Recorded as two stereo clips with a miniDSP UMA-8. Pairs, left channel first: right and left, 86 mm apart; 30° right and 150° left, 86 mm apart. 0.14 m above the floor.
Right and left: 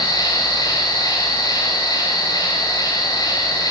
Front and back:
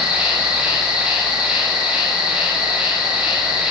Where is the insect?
135° right, 9.5 m.